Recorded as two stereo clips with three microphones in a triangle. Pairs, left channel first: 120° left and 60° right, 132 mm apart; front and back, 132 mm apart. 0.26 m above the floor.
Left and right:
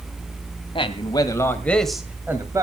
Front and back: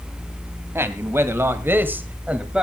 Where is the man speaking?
120° left, 1.8 m; by 2.6 s 100° right, 1.6 m.